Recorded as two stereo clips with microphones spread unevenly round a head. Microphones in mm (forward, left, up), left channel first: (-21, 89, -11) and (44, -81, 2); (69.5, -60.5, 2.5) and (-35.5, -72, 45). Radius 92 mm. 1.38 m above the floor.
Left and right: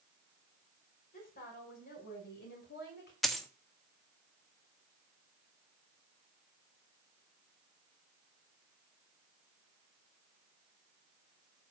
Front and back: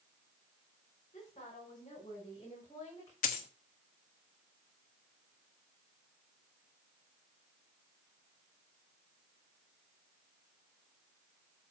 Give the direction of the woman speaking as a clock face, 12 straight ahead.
10 o'clock.